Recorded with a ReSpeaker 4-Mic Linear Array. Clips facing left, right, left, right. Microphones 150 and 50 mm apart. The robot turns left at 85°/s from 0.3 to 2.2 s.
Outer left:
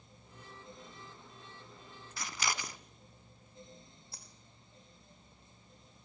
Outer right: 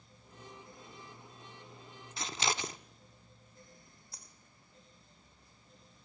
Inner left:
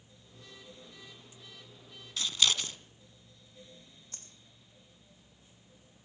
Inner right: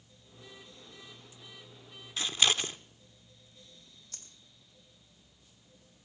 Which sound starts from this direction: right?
Scissors, at 2.2 s.